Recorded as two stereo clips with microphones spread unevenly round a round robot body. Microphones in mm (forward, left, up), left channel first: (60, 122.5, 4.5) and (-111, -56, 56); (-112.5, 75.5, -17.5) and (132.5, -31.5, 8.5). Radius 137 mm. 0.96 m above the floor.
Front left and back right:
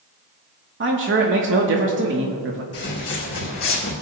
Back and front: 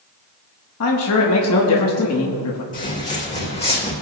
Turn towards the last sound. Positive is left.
turn(degrees=85)